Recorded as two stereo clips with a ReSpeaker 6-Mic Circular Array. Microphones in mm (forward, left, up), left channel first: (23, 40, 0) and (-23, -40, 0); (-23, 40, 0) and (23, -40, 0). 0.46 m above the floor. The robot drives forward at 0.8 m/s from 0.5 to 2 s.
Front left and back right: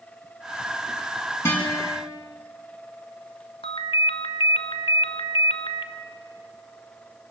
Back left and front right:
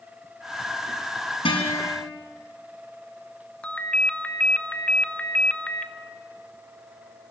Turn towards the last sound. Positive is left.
turn(degrees=45)